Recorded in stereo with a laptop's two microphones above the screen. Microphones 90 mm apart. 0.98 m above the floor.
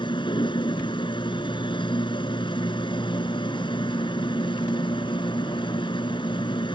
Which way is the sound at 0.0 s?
60° left (ahead or behind).